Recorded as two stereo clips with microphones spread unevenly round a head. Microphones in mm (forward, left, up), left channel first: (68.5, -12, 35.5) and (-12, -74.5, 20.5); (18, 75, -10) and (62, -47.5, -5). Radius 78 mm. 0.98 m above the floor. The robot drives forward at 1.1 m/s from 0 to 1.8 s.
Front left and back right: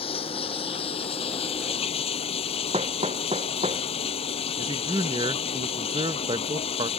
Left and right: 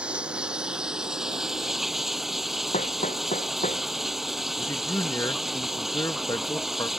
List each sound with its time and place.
0.0 s running water: 10° left; by 7.0 s 15° left
2.7 s hammering: 165° left
4.6 s a man speaking: straight behind